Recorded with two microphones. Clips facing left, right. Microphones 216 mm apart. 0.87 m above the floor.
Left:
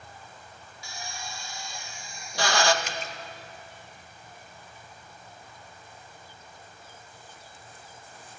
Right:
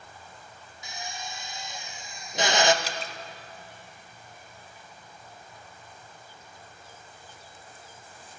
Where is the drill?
20° right (ahead or behind), 0.7 m.